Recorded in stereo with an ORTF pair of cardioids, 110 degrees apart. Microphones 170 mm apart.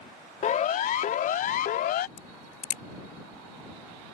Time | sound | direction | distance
0.4 | a siren | 50° left | ?
2.2 | a crack | 65° left | ?